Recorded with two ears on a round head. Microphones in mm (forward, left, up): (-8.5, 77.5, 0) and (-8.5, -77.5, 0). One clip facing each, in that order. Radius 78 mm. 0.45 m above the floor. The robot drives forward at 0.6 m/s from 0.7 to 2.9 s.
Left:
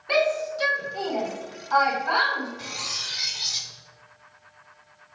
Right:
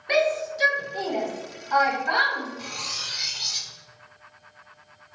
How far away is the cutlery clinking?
About 0.5 m.